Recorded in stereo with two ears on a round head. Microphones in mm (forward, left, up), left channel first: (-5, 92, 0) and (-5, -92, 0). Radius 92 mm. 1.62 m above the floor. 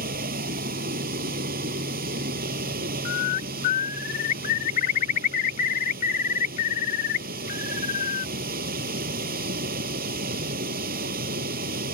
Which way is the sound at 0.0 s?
45° right (ahead or behind).